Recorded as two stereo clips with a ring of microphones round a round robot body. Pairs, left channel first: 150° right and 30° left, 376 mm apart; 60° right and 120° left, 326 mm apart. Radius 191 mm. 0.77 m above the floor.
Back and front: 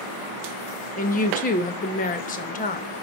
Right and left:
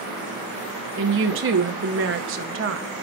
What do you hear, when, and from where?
1.0 s a woman speaking: 150° left, 0.8 m